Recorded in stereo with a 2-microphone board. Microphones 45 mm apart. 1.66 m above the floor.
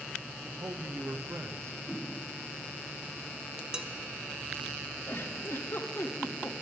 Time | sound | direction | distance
0.4 | a man speaking | 75° right (ahead or behind) | 0.7 m
1.9 | a whoosh | centre (ahead or behind) | 1.8 m
3.7 | dishes clattering | 15° right (ahead or behind) | 0.7 m
5.1 | a giggle | 60° left (ahead or behind) | 1.1 m